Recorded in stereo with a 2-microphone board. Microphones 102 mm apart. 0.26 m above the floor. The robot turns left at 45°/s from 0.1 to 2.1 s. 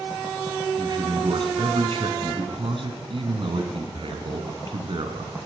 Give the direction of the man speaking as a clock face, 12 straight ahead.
1 o'clock.